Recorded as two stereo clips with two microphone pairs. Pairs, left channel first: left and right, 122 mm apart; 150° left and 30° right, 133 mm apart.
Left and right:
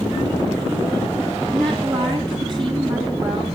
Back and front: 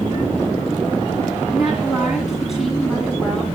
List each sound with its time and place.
1.5 s a woman speaking: 115° right, 2.0 m